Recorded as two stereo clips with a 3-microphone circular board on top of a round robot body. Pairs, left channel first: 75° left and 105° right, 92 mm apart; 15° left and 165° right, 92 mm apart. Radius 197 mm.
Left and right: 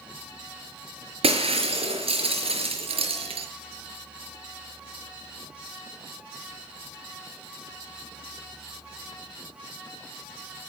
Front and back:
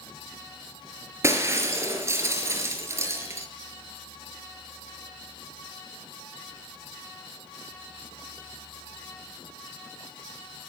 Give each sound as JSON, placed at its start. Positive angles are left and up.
{"t": 1.2, "sound": "breaking glass", "azimuth_deg": -105, "distance_m": 5.0}